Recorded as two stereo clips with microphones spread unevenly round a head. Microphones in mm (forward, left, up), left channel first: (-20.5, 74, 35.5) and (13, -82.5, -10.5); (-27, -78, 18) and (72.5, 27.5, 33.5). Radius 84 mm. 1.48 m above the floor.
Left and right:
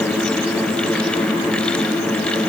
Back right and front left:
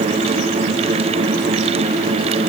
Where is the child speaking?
No child speaking in this recording.